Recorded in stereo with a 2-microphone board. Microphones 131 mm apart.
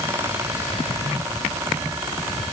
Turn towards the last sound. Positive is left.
No sound to turn to.